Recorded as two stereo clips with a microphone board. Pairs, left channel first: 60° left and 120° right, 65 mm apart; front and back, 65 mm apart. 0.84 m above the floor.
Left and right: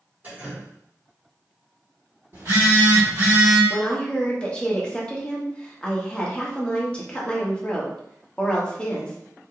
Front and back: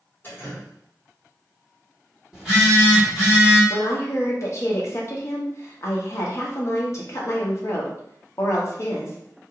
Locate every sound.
0.2 s dripping: 60° right, 1.5 m
2.3 s a phone buzzing: 100° right, 1.7 m
3.7 s a woman speaking: 10° right, 0.8 m